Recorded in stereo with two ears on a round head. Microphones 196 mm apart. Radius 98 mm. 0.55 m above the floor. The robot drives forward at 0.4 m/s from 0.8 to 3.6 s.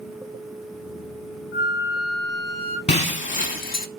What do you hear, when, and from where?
1.5 s a flute: 50° left (ahead or behind), 1.3 m; by 2.8 s 70° left (ahead or behind), 1.1 m
2.9 s breaking glass: 30° left (ahead or behind), 0.9 m; by 3.9 s 40° left (ahead or behind), 0.7 m